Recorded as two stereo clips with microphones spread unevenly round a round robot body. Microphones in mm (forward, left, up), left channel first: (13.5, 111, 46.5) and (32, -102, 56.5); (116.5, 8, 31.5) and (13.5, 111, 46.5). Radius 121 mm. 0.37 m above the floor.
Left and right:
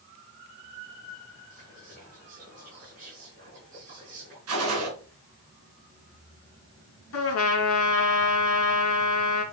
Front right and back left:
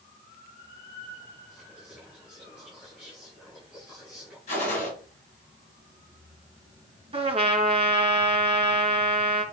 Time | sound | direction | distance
1.5 | whispering | 140° right | 5.5 m
4.5 | a gunshot | 100° right | 3 m
7.1 | a trumpet | 85° left | 2 m